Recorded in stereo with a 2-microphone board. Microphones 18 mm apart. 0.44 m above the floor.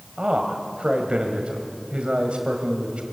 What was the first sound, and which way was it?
A man speaking, 60° right (ahead or behind).